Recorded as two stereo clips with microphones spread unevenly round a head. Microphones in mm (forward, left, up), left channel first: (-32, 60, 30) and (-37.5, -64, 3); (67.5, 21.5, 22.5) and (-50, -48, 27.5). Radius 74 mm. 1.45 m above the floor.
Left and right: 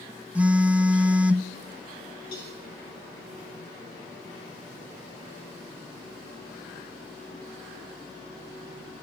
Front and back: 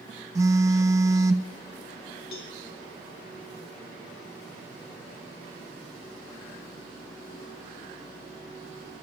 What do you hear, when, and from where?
0.3 s a phone buzzing: 170° left, 0.5 m
2.3 s a cowbell: 30° left, 3.5 m